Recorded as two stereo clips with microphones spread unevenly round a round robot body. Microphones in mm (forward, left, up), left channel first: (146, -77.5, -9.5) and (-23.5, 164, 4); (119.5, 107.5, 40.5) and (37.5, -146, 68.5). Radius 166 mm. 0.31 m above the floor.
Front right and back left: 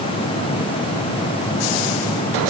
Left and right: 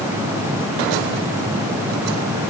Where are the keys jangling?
I don't hear keys jangling.